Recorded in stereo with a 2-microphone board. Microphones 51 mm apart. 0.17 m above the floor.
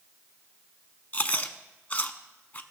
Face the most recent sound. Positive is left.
turn(degrees=30)  # may be behind; listen again after turning